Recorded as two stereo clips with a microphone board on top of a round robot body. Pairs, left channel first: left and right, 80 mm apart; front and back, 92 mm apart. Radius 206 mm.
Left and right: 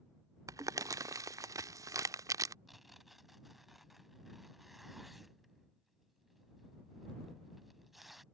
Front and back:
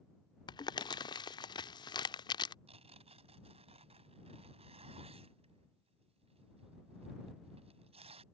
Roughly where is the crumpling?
Ahead right.